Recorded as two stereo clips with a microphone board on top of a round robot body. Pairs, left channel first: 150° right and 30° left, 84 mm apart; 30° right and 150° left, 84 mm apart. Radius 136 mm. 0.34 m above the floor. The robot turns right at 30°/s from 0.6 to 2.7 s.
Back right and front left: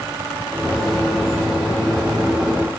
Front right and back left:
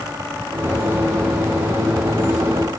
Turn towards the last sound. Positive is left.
No sound to turn to.